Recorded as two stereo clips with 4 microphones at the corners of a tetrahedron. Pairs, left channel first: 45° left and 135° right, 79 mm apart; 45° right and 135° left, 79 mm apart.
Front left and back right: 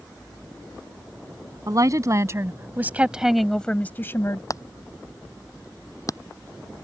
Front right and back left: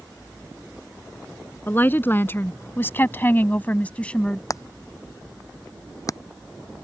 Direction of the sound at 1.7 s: 105° right.